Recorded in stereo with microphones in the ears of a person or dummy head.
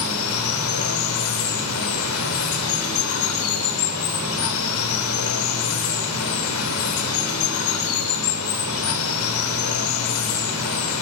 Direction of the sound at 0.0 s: 90° left.